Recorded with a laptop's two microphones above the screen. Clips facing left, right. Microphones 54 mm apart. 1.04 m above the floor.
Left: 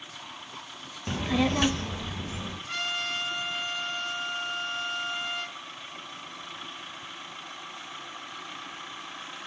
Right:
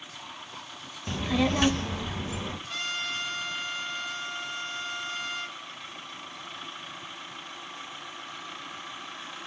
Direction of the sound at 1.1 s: 15° left (ahead or behind).